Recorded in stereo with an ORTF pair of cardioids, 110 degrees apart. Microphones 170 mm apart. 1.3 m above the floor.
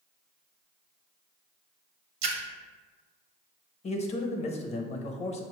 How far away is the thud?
No thud in this recording.